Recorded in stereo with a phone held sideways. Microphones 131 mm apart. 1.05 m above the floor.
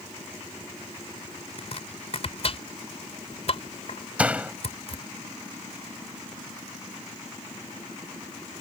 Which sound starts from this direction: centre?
A door slam, at 4.2 s.